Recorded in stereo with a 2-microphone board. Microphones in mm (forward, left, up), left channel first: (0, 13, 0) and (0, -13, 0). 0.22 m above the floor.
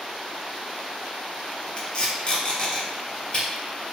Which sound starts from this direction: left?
Tape being pulled, at 1.8 s.